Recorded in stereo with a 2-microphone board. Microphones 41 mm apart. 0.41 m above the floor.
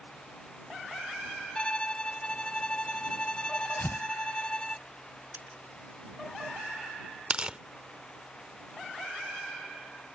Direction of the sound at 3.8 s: 70° left (ahead or behind).